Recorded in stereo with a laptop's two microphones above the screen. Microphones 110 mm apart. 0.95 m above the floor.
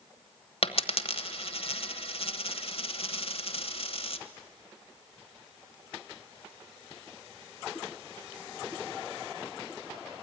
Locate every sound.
0.6 s a dropped coin: 60° left (ahead or behind), 1.2 m